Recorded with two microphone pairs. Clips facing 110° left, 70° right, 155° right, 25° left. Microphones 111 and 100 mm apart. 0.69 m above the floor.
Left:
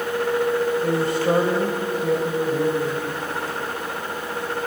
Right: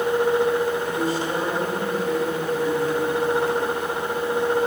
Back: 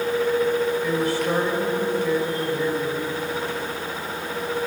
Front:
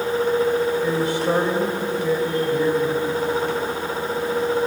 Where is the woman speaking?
90° left, 2.5 m.